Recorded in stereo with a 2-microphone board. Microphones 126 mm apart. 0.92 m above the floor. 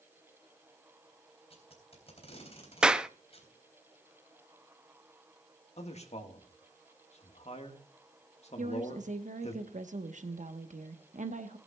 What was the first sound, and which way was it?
Tape being pulled, 50° left (ahead or behind).